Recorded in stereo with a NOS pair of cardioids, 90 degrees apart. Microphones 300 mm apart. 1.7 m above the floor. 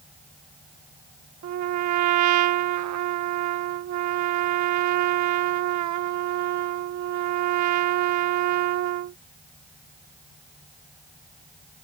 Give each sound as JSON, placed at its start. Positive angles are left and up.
{"t": 1.4, "sound": "a trumpet", "azimuth_deg": -65}